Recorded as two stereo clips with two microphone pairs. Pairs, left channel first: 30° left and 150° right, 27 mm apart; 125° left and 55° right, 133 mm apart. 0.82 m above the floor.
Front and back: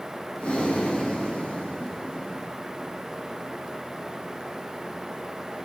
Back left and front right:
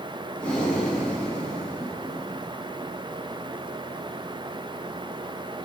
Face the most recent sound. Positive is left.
turn(degrees=45)